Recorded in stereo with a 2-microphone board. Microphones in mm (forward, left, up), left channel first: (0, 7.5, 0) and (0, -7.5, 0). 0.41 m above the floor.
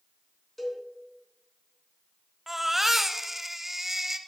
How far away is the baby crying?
About 0.7 m.